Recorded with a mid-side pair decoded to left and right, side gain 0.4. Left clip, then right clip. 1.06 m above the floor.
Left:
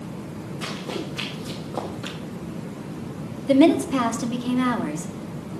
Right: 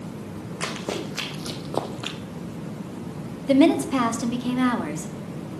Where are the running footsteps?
70° right, 3.5 m; by 2.2 s 60° right, 1.3 m.